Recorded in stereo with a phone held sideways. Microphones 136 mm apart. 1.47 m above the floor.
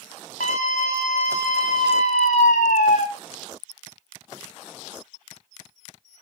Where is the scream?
80° left, 2 m.